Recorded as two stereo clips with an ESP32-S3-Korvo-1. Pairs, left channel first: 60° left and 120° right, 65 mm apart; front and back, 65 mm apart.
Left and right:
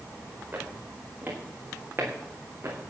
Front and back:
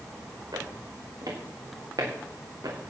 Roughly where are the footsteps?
Behind.